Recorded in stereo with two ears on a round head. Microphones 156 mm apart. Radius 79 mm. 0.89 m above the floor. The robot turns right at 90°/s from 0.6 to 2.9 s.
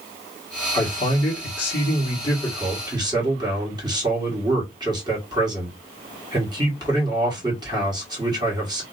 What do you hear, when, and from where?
0.7 s a man speaking: 10° left, 1.3 m; by 8.8 s 155° right, 1.3 m